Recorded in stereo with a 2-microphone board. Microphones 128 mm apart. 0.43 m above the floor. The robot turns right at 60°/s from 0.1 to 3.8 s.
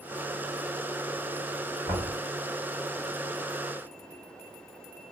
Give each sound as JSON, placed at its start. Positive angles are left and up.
{"t": 1.9, "sound": "knocking", "side_deg": -15, "distance_m": 2.5}